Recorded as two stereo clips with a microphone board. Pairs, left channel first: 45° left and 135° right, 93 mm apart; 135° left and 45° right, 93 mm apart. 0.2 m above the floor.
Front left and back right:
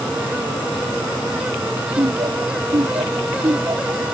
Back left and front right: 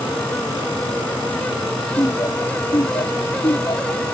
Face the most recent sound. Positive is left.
turn(degrees=175)